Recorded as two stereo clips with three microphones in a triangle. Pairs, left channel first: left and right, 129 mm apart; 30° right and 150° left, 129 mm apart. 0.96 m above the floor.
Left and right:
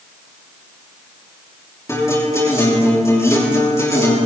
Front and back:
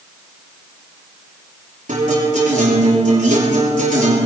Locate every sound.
1.9 s a guitar: 155° left, 6.5 m